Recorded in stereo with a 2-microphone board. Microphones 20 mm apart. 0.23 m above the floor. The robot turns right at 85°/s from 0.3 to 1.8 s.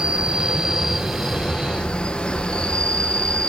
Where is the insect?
75° right, 1.2 m; by 3.5 s 55° left, 1.2 m.